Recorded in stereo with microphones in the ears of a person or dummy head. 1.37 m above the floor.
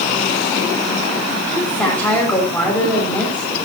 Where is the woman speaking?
Centre (ahead or behind), 5.5 m.